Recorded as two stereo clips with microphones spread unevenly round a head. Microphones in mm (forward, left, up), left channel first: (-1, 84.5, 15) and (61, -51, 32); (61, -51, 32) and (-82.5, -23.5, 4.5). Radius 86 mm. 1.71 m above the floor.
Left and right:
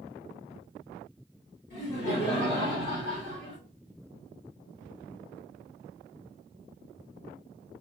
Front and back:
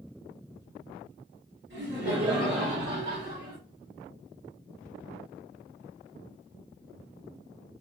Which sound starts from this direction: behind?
Laughter, at 1.7 s.